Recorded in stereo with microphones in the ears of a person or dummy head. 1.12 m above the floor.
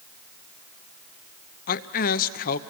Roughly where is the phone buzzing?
I don't hear a phone buzzing.